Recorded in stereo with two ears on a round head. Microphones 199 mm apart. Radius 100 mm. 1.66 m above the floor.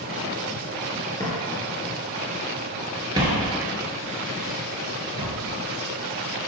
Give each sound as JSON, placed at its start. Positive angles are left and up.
{"t": 1.2, "sound": "footsteps", "side_deg": 15, "distance_m": 2.0}